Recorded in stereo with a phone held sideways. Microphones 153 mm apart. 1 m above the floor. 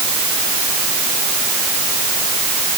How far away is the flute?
I don't hear a flute.